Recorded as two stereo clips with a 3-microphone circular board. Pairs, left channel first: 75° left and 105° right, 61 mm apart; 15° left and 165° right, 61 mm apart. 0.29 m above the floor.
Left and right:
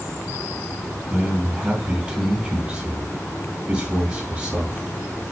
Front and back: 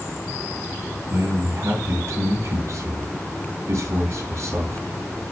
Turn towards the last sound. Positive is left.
turn(degrees=-165)